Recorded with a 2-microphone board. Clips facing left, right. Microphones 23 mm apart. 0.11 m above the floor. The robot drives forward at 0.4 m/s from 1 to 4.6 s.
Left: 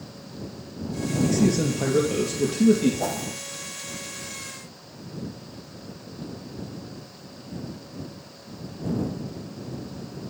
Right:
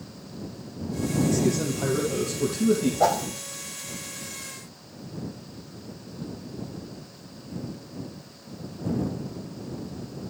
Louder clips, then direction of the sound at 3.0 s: Right 6 dB; 40° right (ahead or behind).